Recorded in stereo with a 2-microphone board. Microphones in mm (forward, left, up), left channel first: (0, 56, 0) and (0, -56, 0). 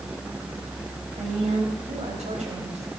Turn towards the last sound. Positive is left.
turn(degrees=-75)  # may be behind; listen again after turning